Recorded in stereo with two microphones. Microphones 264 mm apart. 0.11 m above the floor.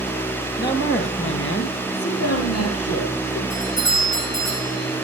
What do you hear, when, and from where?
0.6 s a man speaking: 40° left (ahead or behind), 2.5 m; by 3.4 s 65° left (ahead or behind), 3.5 m
3.5 s a doorbell: 75° left (ahead or behind), 8 m